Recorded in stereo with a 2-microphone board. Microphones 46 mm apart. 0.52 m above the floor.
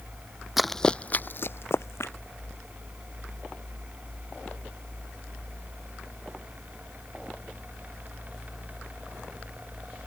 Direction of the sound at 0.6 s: 5° right (ahead or behind).